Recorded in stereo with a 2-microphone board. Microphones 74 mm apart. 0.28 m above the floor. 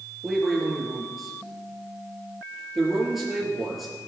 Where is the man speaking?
Centre (ahead or behind), 5.5 m.